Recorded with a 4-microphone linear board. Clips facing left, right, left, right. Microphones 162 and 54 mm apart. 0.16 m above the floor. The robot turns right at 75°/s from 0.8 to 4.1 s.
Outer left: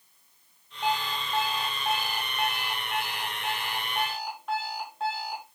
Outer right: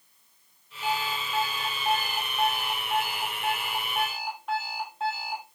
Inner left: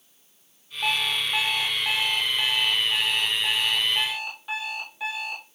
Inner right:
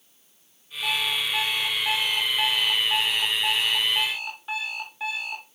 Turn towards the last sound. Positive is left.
turn(degrees=0)